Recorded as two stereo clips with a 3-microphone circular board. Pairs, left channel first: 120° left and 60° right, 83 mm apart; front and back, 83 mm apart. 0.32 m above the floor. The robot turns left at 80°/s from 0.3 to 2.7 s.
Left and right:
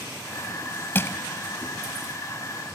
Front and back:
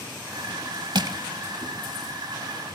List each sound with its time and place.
0.9 s crushing: straight behind, 0.7 m; by 1.2 s 160° left, 0.7 m